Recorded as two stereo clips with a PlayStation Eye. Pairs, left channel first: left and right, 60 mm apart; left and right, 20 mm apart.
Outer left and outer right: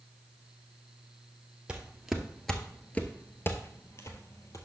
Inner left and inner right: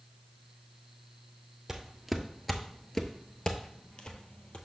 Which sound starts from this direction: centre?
Footsteps, at 1.7 s.